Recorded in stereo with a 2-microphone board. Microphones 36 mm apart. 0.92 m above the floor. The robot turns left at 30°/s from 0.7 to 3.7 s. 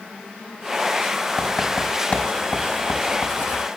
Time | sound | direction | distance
1.4 | writing | 10° left (ahead or behind) | 4.5 m